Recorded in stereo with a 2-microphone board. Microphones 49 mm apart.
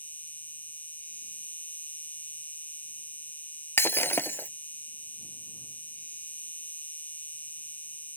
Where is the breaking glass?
50° left (ahead or behind).